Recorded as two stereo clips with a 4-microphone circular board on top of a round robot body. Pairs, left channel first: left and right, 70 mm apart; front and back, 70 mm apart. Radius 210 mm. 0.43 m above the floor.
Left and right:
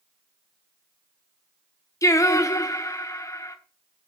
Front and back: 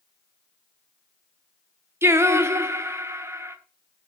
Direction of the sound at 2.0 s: 130° left.